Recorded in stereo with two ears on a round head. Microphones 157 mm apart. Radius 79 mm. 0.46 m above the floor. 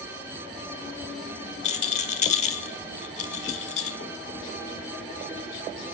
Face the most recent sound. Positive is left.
turn(degrees=40)  # may be behind; listen again after turning